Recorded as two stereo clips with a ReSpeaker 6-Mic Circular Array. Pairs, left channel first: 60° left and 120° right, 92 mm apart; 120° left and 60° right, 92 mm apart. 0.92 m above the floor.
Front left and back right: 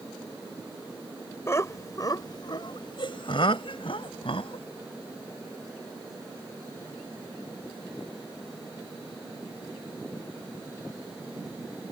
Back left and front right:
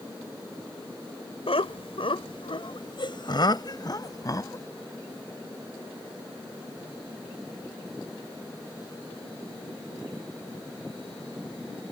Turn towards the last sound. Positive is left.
turn(degrees=65)